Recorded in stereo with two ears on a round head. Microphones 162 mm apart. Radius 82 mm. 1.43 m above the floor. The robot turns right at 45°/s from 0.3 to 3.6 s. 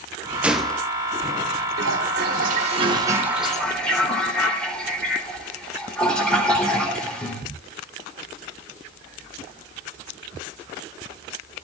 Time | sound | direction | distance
0.4 | a gunshot | 10° right (ahead or behind) | 1.5 m
1.8 | a toilet flushing | 80° right | 4 m